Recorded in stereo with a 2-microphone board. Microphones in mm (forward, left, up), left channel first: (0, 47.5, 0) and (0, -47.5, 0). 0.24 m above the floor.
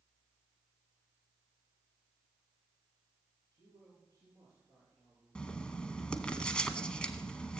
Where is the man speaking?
35° right (ahead or behind), 7.5 m.